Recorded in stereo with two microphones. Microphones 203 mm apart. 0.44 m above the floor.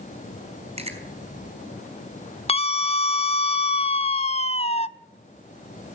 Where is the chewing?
30° right (ahead or behind), 4.5 m.